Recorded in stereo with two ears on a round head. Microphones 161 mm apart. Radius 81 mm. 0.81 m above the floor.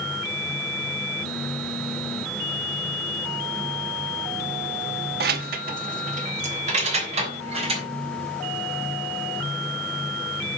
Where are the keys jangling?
65° right (ahead or behind), 1.0 m; by 7.9 s 40° right (ahead or behind), 4 m.